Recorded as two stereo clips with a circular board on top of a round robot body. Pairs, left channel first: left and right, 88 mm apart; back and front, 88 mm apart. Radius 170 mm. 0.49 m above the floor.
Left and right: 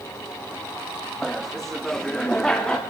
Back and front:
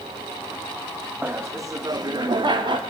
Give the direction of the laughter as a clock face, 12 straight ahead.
12 o'clock.